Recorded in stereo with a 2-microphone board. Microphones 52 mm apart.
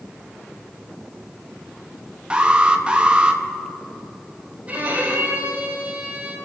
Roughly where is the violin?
Right.